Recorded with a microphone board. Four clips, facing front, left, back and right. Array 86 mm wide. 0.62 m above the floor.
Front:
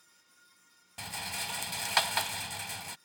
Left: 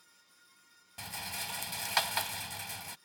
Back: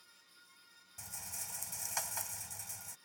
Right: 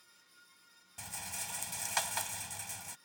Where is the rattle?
15° left.